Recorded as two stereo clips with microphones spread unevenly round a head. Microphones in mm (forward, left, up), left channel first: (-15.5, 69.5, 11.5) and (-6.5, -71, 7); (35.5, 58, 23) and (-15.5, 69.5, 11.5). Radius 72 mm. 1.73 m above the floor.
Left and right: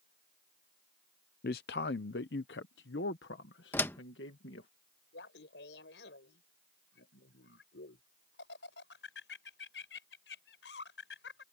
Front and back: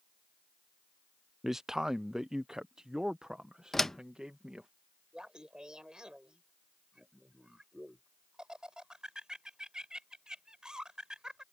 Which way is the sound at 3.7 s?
35° left.